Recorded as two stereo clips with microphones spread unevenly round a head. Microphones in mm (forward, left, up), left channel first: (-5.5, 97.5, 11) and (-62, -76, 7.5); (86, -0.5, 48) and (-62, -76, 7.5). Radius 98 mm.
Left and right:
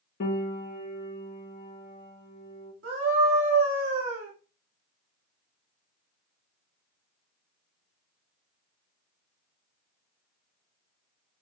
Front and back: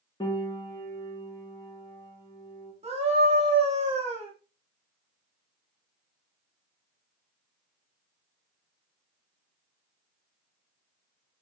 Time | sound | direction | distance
0.2 | a piano | 100° left | 2 m
2.8 | a scream | 105° right | 3 m